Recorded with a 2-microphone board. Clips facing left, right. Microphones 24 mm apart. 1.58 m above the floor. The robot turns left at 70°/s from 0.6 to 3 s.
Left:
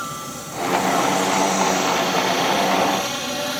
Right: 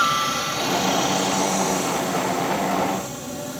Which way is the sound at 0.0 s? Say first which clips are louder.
Right 10 dB; 125° right.